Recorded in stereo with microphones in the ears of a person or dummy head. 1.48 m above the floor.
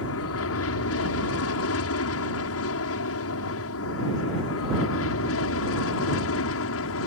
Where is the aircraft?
75° left (ahead or behind); by 7.1 s 70° left (ahead or behind).